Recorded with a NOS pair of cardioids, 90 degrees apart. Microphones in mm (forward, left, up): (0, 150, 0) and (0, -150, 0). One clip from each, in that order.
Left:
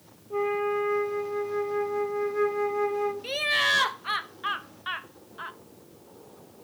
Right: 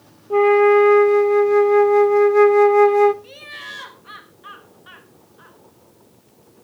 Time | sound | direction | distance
0.3 | a flute | 65° right | 0.9 m
3.2 | laughter | 65° left | 1.0 m